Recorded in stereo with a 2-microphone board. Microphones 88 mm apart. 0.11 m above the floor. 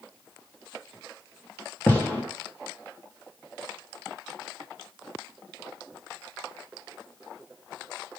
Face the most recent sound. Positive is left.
turn(degrees=20)  # may be behind; listen again after turning